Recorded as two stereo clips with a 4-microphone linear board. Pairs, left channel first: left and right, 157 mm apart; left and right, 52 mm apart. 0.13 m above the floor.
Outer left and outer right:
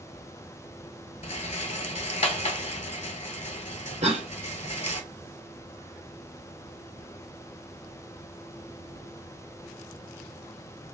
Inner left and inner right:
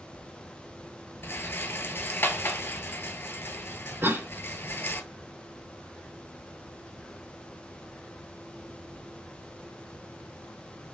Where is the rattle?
45° left (ahead or behind), 0.5 m.